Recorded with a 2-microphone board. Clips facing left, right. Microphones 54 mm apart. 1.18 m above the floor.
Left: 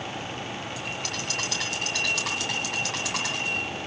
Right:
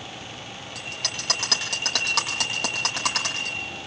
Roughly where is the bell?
Right.